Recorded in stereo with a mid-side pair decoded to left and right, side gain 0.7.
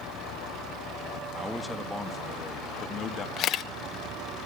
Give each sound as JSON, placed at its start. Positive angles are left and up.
{"t": 1.4, "sound": "a man speaking", "azimuth_deg": 0, "distance_m": 2.0}
{"t": 3.4, "sound": "a camera shutter", "azimuth_deg": 50, "distance_m": 1.1}